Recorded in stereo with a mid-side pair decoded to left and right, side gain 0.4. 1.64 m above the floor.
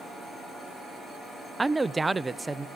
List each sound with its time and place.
1.6 s a man speaking: 15° right, 0.6 m; by 2.7 s 20° right, 1.3 m